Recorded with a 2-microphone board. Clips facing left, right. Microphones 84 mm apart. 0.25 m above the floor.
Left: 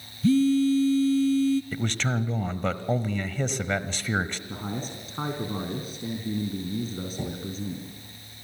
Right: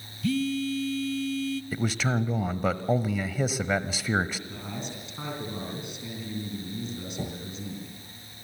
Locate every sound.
0.2 s a phone buzzing: 35° left (ahead or behind), 0.5 m
1.7 s a man speaking: 5° right (ahead or behind), 0.9 m
4.5 s a man speaking: 40° left (ahead or behind), 3 m